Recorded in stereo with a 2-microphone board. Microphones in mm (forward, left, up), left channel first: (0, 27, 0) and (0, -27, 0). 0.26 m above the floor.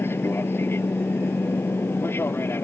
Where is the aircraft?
45° left (ahead or behind).